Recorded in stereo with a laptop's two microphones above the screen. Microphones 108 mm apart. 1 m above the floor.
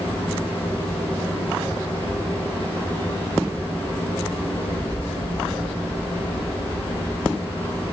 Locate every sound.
0.0 s a fan: 20° left (ahead or behind), 7.5 m